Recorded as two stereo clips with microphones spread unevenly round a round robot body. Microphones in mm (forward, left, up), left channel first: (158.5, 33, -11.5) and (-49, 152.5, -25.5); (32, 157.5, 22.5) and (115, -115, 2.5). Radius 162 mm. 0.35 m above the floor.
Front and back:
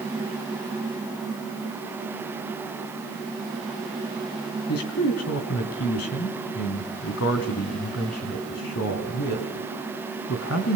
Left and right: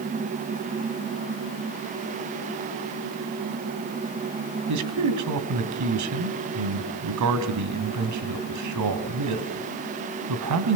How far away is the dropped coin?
No dropped coin in this recording.